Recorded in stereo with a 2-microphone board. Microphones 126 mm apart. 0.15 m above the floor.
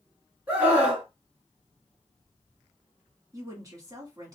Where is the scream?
10° right (ahead or behind), 1.7 m.